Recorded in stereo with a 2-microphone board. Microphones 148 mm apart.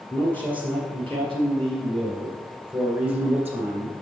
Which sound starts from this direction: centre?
A man speaking, at 0.1 s.